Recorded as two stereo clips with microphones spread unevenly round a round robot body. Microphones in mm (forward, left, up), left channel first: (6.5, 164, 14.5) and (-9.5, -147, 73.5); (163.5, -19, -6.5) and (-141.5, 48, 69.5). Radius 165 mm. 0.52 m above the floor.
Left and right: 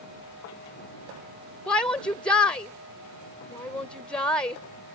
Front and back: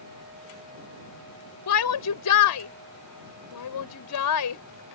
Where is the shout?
5° left.